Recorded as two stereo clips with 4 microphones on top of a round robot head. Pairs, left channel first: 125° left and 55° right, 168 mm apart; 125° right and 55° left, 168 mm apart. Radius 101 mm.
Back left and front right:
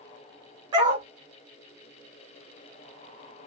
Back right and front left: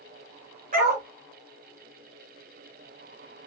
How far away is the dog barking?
About 2.5 m.